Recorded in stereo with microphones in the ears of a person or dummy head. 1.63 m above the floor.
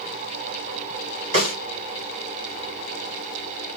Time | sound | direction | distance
1.3 | a snare drum | 30° right (ahead or behind) | 3 m